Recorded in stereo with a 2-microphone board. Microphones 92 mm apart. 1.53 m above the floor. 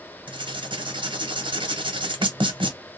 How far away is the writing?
About 0.9 m.